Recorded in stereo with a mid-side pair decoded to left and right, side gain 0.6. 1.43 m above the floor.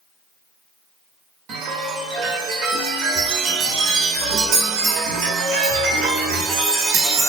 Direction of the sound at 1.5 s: 60° right.